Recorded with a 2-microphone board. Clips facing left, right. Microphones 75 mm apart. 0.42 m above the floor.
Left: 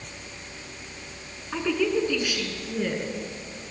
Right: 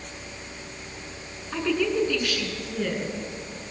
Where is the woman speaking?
5° left (ahead or behind), 5 m.